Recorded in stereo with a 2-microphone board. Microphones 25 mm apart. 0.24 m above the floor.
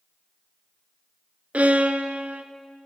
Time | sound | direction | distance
1.5 | a violin | 85° right | 0.5 m